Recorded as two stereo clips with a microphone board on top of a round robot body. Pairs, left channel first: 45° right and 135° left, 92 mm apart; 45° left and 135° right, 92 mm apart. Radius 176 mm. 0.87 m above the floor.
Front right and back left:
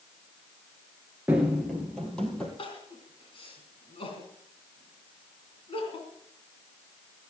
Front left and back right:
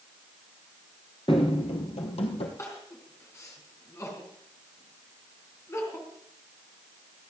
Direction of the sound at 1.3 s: 70° left.